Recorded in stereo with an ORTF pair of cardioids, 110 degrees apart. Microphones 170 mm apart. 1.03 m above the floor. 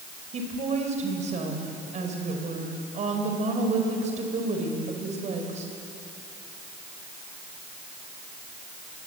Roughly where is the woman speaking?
Ahead right.